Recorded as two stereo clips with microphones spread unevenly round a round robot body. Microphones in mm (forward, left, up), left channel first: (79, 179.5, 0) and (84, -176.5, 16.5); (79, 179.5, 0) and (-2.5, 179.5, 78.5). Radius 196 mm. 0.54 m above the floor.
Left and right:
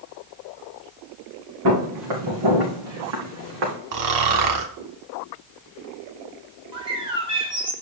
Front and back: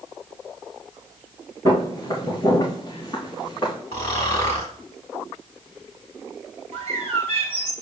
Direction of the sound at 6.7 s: 170° right.